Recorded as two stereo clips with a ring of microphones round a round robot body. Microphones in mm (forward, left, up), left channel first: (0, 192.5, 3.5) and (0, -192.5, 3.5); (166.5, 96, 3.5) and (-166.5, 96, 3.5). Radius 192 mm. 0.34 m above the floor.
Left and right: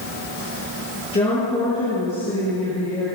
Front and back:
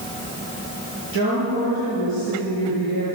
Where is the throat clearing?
No throat clearing in this recording.